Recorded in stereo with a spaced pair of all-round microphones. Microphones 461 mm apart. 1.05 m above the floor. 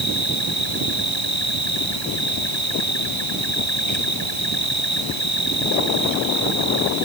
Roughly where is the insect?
Left.